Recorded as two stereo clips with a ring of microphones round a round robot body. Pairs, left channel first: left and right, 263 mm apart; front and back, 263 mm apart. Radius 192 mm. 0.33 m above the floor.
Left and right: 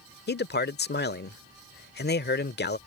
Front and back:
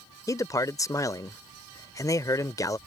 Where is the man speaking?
70° left.